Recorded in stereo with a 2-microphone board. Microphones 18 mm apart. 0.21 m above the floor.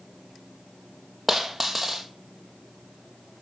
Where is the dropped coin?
20° right (ahead or behind), 2.5 m.